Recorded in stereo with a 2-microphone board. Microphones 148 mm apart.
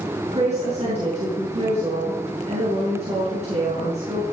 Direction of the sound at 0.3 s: 45° right (ahead or behind).